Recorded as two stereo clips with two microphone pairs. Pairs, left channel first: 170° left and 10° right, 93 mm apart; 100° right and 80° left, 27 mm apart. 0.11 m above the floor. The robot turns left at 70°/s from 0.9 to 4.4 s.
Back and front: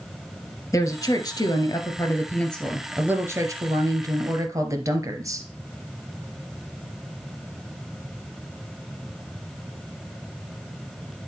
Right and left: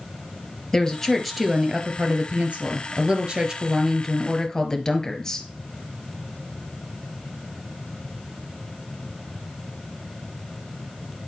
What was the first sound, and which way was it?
A woman speaking, 155° right.